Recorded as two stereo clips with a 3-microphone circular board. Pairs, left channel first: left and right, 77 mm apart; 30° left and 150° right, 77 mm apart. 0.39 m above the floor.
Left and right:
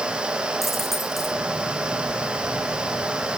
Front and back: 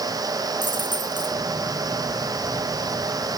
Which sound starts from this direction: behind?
A dropped coin, at 0.6 s.